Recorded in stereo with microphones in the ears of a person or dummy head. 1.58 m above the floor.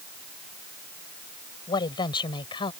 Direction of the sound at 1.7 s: 25° left (ahead or behind).